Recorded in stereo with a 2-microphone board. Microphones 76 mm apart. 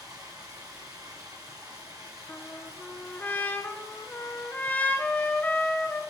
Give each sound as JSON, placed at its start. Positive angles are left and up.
{"t": 0.0, "sound": "running water", "side_deg": -55, "distance_m": 6.0}
{"t": 2.3, "sound": "a trumpet", "side_deg": 20, "distance_m": 0.8}